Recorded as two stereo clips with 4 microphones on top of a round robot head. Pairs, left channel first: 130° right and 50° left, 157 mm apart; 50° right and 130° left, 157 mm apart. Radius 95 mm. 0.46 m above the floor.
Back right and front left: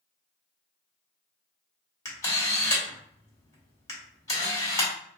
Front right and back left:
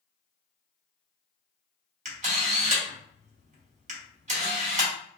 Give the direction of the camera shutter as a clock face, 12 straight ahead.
7 o'clock.